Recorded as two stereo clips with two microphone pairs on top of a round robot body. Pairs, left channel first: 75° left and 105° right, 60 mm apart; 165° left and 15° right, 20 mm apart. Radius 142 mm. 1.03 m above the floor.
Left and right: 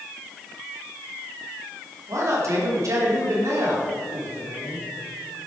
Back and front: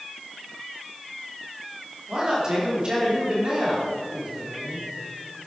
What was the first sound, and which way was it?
A man speaking, 70° right.